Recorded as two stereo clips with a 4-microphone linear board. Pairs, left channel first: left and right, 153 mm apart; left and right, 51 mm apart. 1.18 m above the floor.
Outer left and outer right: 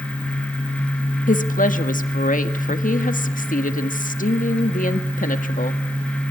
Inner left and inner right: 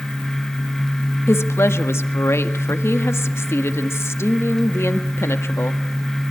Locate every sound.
1.3 s a woman speaking: 60° left (ahead or behind), 1.6 m